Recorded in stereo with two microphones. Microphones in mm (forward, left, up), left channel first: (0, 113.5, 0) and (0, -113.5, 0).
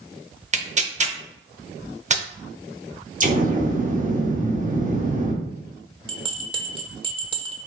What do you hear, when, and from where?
0.5 s tearing paper: 30° right (ahead or behind), 0.6 m
3.2 s an explosion: 35° right (ahead or behind), 1.0 m
6.1 s a bell: 20° right (ahead or behind), 0.8 m